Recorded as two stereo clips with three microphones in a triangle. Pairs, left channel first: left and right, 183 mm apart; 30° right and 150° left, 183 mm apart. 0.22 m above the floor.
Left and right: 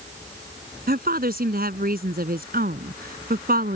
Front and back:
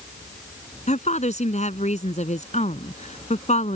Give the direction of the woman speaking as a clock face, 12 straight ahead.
2 o'clock.